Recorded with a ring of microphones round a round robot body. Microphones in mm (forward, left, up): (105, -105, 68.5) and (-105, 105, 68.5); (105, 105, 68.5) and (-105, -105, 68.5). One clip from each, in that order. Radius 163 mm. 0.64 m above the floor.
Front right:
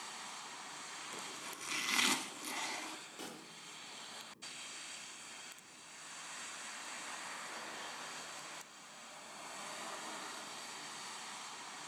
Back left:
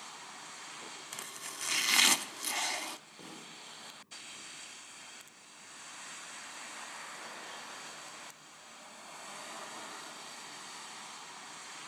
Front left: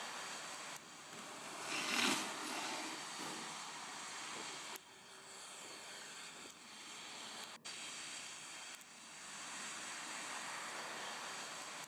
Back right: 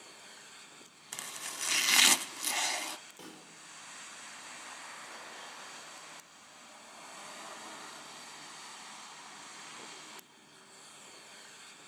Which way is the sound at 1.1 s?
160° right.